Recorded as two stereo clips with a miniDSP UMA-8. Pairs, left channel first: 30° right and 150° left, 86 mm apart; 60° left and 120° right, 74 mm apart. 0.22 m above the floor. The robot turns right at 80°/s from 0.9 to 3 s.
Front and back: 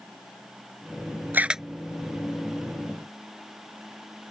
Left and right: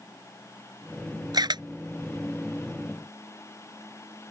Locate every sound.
1.3 s a camera shutter: 145° right; by 1.6 s 120° right